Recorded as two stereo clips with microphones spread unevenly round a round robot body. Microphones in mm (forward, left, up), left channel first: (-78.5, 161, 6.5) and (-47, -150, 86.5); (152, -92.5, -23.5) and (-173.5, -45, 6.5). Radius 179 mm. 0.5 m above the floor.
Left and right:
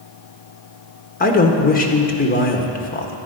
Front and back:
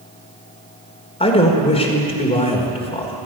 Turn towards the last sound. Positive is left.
turn(degrees=60)